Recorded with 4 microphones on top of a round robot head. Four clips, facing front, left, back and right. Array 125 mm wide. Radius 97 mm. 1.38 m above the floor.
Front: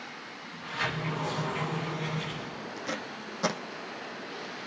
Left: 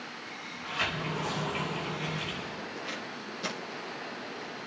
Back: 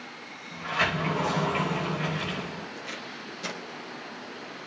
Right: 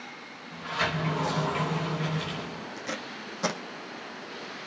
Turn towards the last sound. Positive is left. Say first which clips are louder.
# right 2 dB, front 3 dB
turn(degrees=-45)